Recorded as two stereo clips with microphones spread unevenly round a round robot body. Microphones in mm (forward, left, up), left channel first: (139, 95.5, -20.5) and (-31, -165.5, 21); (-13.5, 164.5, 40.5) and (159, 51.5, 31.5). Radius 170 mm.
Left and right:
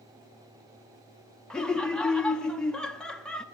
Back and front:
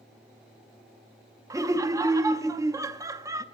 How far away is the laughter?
About 0.6 m.